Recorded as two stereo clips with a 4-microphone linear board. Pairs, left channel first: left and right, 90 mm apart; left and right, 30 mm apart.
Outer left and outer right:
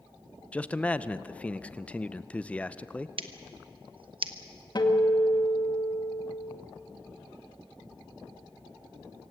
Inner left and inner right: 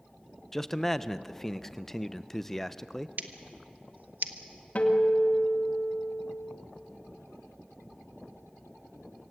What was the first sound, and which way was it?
A man speaking, 15° left (ahead or behind).